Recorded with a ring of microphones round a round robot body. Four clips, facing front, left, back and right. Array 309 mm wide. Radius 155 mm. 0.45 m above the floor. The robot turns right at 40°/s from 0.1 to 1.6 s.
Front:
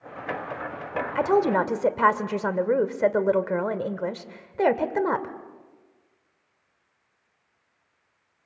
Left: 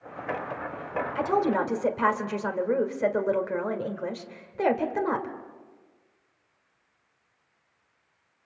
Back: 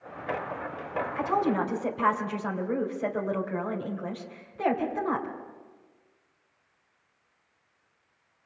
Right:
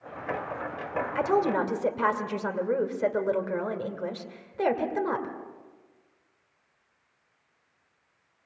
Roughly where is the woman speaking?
Ahead.